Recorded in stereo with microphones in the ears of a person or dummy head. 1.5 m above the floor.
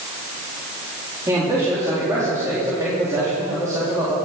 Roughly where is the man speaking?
Centre.